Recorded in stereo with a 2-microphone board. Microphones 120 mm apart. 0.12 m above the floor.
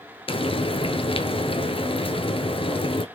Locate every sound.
0.3 s frying: 50° left (ahead or behind), 0.6 m